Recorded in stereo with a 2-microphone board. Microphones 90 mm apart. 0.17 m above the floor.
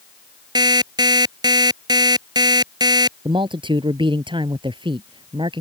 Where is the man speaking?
70° right (ahead or behind).